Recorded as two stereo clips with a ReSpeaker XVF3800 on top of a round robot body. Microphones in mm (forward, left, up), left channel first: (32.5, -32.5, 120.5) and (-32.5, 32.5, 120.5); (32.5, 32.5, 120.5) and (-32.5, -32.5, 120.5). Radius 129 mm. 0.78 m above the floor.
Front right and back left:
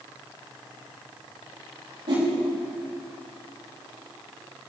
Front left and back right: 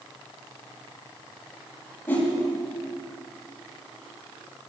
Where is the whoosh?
110° left, 5.5 m.